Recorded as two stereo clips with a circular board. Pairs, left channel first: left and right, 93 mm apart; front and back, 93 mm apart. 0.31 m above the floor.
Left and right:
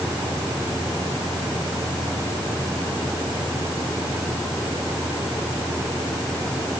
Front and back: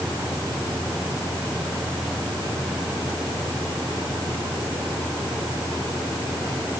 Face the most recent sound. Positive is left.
No sound to turn to.